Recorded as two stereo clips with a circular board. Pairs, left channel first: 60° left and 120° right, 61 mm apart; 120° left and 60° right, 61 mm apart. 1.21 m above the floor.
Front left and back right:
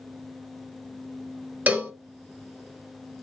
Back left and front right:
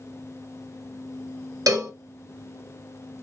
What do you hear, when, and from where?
1.7 s a cowbell: 55° right, 0.8 m